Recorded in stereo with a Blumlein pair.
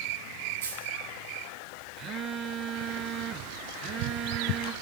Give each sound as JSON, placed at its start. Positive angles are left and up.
{"t": 0.6, "sound": "a dropped coin", "azimuth_deg": -65, "distance_m": 8.0}
{"t": 2.0, "sound": "a phone buzzing", "azimuth_deg": -30, "distance_m": 1.0}